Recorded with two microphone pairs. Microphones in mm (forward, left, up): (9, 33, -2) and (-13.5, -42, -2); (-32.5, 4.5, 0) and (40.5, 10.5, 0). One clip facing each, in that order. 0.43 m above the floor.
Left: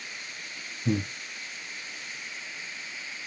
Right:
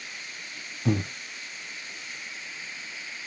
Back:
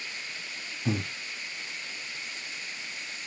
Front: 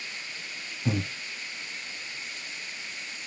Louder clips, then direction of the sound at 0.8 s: Right 1 dB, front 1 dB; 80° right.